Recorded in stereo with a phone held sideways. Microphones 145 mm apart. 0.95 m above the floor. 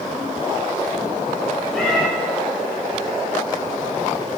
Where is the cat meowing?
Centre (ahead or behind), 1.8 m.